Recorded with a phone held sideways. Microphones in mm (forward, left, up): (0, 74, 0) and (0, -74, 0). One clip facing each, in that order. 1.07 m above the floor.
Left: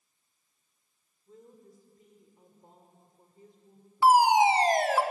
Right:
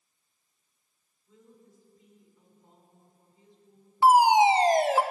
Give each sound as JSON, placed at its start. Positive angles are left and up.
{"t": 1.3, "sound": "a woman speaking", "side_deg": 50, "distance_m": 3.5}
{"t": 4.0, "sound": "a fire alarm", "side_deg": -25, "distance_m": 1.3}